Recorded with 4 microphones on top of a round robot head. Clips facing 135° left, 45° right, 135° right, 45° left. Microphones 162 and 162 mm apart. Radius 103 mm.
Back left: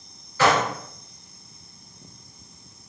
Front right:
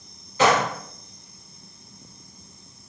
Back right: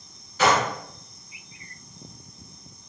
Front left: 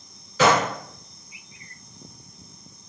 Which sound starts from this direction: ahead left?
A gunshot, at 0.4 s.